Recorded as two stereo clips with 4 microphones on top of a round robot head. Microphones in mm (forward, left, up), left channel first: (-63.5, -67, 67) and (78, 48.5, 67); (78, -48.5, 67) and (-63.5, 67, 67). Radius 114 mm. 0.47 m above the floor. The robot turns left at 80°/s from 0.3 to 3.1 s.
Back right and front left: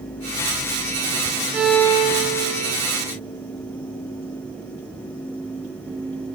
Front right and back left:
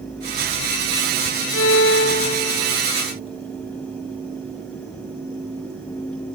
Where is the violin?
40° right, 1.3 m; by 2.8 s 140° right, 1.3 m.